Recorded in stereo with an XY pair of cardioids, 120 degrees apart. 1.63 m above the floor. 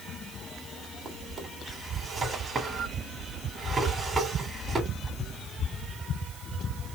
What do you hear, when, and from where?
1.1 s a drawer: 25° right, 3 m